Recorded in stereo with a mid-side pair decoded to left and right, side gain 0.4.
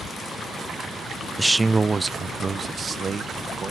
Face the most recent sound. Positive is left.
turn(degrees=-50)